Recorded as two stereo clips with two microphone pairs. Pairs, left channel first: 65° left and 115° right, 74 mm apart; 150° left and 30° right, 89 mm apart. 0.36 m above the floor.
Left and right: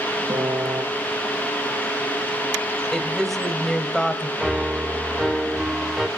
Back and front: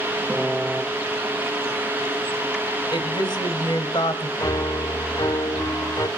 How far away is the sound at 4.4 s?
About 0.9 m.